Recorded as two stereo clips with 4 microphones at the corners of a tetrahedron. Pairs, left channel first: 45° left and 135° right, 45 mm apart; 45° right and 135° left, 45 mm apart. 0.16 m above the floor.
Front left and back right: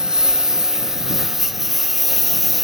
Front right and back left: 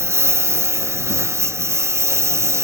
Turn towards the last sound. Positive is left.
turn(degrees=135)